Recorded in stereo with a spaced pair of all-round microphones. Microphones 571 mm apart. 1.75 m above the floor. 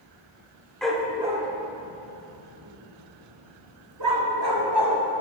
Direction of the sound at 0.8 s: Centre (ahead or behind).